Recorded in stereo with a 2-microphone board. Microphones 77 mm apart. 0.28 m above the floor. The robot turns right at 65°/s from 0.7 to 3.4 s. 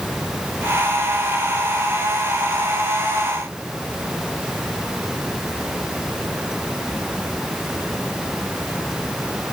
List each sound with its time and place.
Only background noise.